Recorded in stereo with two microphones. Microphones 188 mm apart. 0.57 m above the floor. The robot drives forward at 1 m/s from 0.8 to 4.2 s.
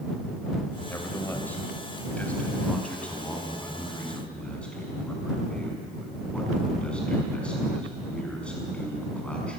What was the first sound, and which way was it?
A man speaking, 10° left (ahead or behind).